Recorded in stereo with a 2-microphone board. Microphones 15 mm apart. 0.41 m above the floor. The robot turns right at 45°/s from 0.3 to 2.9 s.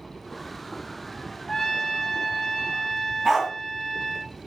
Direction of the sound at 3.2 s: 35° right (ahead or behind).